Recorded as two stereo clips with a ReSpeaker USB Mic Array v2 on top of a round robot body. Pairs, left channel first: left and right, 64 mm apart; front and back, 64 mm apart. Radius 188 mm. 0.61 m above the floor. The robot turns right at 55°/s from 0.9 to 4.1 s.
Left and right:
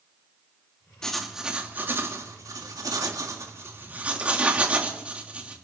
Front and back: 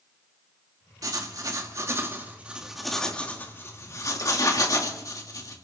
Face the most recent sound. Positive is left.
turn(degrees=-20)